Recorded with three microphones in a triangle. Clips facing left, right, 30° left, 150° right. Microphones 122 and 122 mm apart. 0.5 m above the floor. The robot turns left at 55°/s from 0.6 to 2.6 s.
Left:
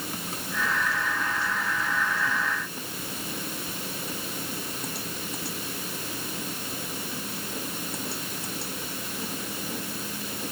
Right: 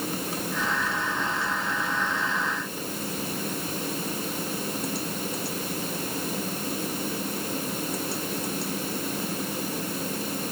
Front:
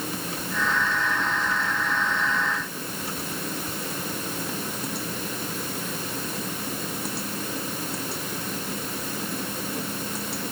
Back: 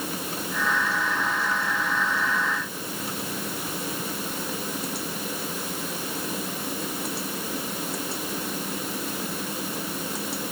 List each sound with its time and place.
Only background noise.